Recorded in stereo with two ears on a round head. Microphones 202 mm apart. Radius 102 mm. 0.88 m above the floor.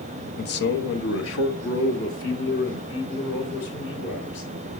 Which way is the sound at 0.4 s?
40° left (ahead or behind).